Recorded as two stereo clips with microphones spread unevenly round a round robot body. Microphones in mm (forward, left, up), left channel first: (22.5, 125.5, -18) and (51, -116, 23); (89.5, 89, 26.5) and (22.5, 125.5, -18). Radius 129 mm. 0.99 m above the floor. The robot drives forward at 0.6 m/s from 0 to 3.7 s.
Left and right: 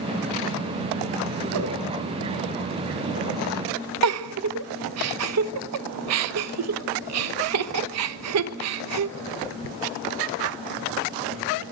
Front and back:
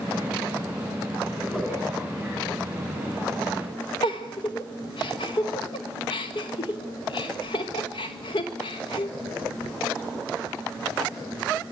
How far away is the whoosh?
About 2.5 m.